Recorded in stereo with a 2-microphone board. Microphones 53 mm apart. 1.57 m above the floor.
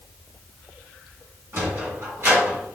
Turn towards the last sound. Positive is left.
turn(degrees=-50)  # may be behind; listen again after turning